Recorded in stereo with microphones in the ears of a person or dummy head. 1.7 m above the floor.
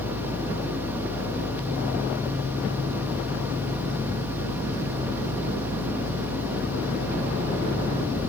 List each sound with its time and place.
0.0 s a fan: 10° right (ahead or behind)